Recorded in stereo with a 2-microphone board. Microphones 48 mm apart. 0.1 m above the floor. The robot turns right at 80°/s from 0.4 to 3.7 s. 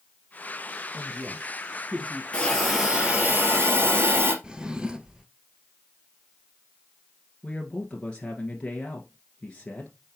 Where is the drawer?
15° right (ahead or behind), 0.7 m.